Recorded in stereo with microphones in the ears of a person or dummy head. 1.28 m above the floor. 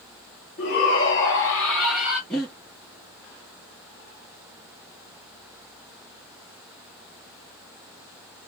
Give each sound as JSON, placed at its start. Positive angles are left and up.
{"t": 0.6, "sound": "a shout", "side_deg": 40, "distance_m": 1.7}
{"t": 2.3, "sound": "breathing", "side_deg": 5, "distance_m": 1.7}